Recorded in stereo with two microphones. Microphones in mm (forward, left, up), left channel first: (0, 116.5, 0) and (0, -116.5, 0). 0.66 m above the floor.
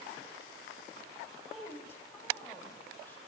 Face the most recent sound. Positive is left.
turn(degrees=10)  # may be behind; listen again after turning